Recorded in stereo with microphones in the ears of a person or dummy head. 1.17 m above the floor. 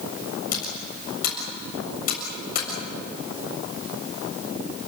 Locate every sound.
0.5 s typing on a keyboard: 50° left (ahead or behind), 7.5 m